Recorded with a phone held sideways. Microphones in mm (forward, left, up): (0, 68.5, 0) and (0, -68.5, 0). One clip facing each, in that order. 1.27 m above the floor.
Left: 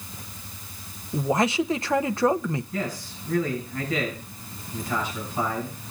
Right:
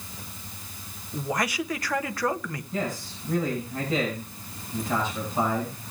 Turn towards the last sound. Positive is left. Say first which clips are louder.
# even
turn(degrees=-25)  # may be behind; listen again after turning